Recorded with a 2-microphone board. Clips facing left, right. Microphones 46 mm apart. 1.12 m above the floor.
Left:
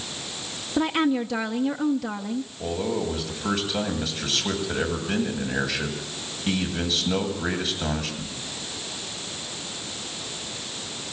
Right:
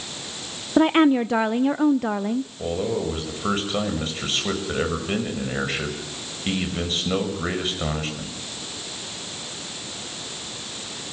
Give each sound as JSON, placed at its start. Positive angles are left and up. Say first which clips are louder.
{"t": 0.8, "sound": "a woman speaking", "louder": "right 6 dB", "side_deg": -35, "distance_m": 0.5}
{"t": 2.6, "sound": "a man speaking", "louder": "left 1 dB", "side_deg": -35, "distance_m": 6.5}